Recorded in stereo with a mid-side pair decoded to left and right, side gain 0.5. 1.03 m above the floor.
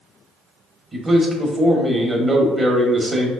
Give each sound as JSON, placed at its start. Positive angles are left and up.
{"t": 0.9, "sound": "a man speaking", "azimuth_deg": -25, "distance_m": 1.9}